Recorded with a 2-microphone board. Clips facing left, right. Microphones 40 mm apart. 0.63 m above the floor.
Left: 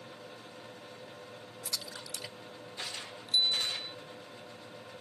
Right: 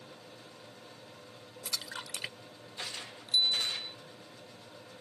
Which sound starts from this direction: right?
A splash, at 1.6 s.